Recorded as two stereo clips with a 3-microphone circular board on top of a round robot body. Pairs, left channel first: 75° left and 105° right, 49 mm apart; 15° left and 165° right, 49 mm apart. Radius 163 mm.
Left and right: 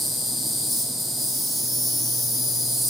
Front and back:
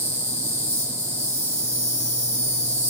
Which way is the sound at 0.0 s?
15° right.